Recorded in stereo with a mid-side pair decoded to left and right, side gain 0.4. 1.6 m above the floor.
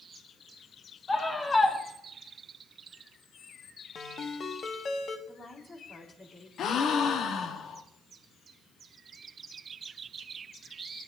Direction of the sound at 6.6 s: 65° left.